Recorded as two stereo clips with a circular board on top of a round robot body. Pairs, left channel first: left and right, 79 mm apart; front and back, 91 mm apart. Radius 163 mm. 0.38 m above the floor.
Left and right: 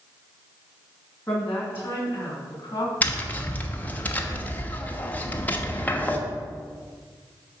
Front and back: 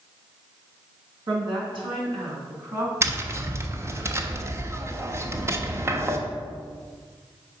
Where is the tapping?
145° left, 1.1 m.